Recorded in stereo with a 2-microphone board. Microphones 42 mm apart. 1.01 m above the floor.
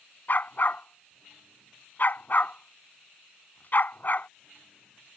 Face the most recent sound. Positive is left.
turn(degrees=50)  # may be behind; listen again after turning